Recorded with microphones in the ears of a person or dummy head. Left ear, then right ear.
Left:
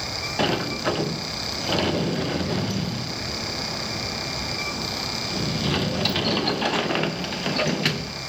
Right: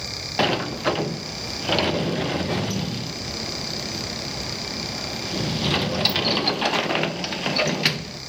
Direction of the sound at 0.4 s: 20° right (ahead or behind).